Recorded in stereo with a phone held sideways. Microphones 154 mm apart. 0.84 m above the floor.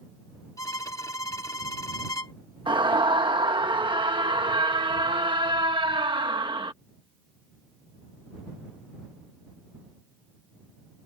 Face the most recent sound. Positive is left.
turn(degrees=-30)  # may be behind; listen again after turning